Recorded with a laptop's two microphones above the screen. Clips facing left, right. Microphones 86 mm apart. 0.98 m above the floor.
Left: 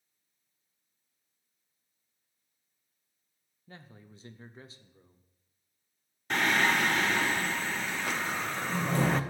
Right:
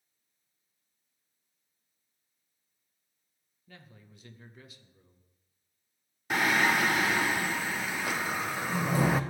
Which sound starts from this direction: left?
A man speaking, at 3.7 s.